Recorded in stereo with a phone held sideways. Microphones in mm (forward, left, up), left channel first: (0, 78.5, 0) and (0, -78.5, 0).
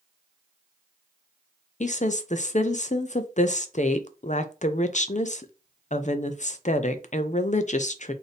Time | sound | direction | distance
1.8 | a woman speaking | 50° left (ahead or behind) | 0.5 m